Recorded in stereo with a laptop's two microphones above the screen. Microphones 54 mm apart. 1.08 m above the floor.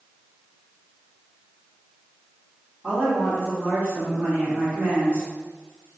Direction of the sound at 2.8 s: 35° right (ahead or behind).